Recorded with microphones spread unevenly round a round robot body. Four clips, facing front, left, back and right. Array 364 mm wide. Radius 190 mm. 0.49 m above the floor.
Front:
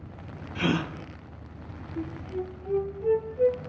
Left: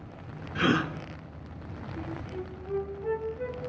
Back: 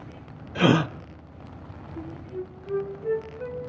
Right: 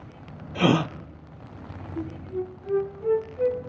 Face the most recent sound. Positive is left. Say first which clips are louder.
# right 7 dB, front 2 dB
turn(degrees=-55)